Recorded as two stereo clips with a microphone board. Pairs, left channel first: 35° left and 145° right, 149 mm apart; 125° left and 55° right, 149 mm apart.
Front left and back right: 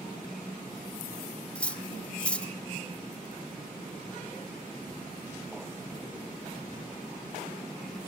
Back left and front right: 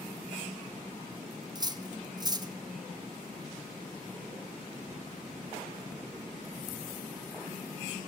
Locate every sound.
1.6 s cutlery clinking: 40° right, 0.5 m